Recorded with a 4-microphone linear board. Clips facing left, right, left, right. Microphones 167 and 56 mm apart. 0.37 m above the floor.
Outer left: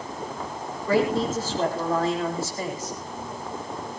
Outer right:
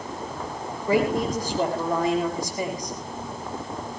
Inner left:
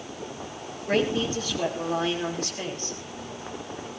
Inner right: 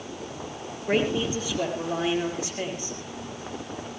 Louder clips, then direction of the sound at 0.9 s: Even, even; 15° right (ahead or behind).